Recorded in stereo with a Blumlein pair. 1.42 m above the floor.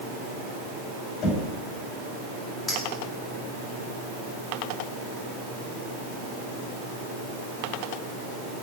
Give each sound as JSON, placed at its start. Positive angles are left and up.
{"t": 1.2, "sound": "knocking", "azimuth_deg": 25, "distance_m": 5.5}
{"t": 2.7, "sound": "a clink", "azimuth_deg": 10, "distance_m": 5.5}